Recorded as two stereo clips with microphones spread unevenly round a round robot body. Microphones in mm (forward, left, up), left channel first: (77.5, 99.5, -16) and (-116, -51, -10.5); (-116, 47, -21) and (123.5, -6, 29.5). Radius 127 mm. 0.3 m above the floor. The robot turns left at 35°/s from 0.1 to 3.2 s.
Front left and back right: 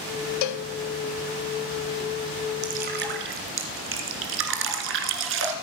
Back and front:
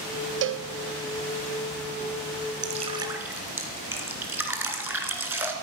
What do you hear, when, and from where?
0.4 s a cowbell: 35° left, 0.6 m; by 0.7 s 25° left, 0.6 m
2.6 s dripping: 75° right, 1.5 m; by 5.5 s 95° right, 1.5 m